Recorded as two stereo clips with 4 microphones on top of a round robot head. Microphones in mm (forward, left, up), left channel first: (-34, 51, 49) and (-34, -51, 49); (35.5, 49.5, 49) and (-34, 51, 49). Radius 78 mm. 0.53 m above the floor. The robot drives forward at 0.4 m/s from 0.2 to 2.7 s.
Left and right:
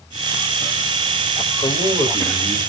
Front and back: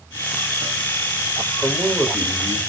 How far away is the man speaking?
About 1.6 m.